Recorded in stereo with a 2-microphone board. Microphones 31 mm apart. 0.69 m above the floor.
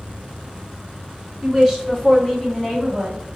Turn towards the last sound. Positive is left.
turn(degrees=55)  # may be behind; listen again after turning